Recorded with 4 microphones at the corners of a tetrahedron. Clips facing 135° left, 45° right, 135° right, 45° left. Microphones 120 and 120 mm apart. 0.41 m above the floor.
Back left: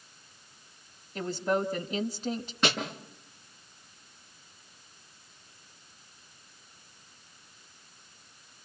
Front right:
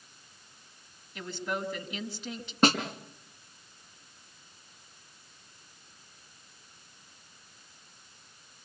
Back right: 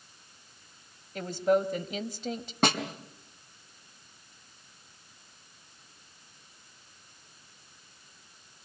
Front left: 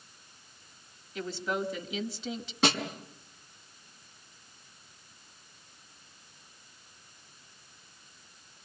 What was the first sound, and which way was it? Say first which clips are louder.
A woman speaking: back left 6 dB, back right 8 dB; 175° right.